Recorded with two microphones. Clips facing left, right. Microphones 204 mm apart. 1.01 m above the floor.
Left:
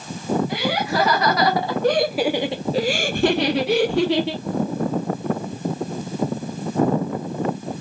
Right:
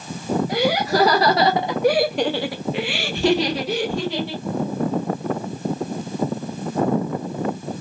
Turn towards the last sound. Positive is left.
turn(degrees=80)